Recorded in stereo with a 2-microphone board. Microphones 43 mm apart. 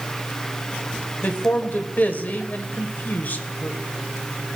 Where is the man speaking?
45° left (ahead or behind), 1.9 m.